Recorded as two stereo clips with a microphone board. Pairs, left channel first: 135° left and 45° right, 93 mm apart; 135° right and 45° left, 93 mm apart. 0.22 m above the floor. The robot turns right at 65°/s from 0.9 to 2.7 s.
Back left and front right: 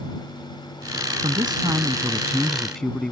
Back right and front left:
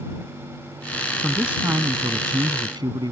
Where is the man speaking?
45° right; by 3.1 s 50° left.